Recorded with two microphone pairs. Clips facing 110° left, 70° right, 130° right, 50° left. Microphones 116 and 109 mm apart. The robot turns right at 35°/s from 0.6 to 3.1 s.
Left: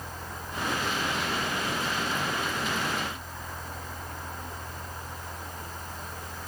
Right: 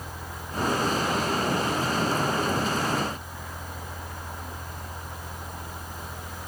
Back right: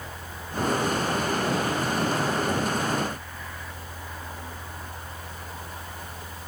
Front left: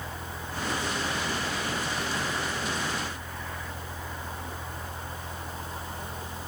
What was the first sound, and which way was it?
Only background noise.